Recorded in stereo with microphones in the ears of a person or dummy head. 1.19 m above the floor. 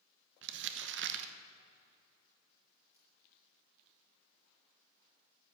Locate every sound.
0.4 s crumpling: 60° right (ahead or behind), 1.0 m
2.9 s a splash: 15° right (ahead or behind), 6 m